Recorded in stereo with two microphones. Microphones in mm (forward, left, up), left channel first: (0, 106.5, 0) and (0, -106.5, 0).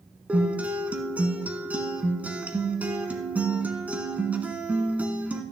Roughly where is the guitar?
Centre.